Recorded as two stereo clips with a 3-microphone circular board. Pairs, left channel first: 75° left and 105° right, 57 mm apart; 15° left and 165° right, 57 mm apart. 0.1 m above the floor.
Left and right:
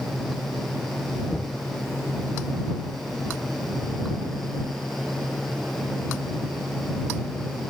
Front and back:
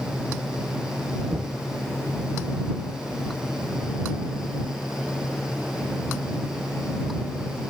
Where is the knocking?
150° left.